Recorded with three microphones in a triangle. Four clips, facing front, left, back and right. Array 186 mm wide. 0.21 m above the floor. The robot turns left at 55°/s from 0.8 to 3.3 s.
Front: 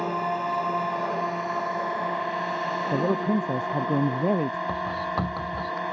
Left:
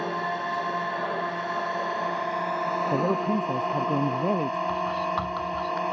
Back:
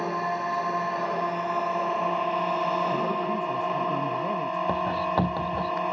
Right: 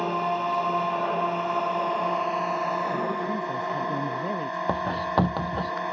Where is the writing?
115° right.